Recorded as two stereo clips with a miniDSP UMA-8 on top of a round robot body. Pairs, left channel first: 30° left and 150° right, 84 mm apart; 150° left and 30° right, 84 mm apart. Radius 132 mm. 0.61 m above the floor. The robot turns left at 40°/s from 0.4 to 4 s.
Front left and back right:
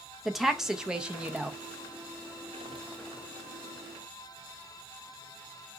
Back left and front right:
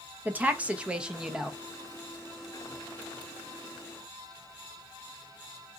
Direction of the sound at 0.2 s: 65° right.